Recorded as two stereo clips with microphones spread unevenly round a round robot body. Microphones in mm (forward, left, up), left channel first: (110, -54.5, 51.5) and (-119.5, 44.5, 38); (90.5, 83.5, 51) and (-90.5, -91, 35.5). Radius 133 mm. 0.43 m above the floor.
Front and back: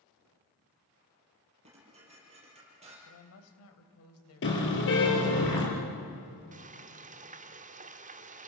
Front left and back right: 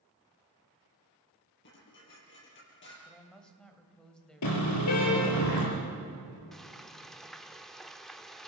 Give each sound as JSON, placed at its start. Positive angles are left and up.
{"t": 1.6, "sound": "dishes clattering", "azimuth_deg": 90, "distance_m": 7.5}
{"t": 3.0, "sound": "a woman speaking", "azimuth_deg": -45, "distance_m": 2.5}
{"t": 4.4, "sound": "a car horn", "azimuth_deg": 25, "distance_m": 5.5}
{"t": 6.5, "sound": "frying", "azimuth_deg": 135, "distance_m": 1.1}